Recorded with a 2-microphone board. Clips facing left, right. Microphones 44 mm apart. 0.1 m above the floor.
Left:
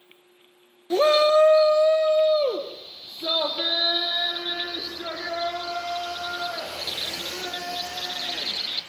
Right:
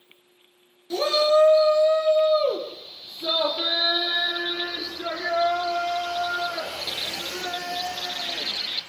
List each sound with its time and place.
0.9 s a shout: 35° left (ahead or behind), 1.5 m; by 8.8 s 5° right (ahead or behind), 10 m